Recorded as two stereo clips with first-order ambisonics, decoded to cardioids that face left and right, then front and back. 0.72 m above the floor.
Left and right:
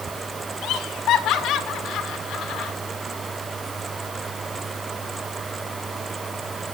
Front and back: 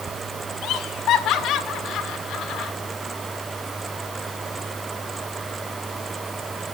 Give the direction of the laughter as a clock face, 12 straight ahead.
10 o'clock.